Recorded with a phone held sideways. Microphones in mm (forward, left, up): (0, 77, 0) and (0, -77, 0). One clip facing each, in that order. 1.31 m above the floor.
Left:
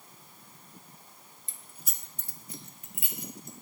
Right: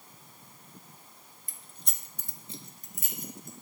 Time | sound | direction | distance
1.5 | keys jangling | 25° left (ahead or behind) | 0.8 m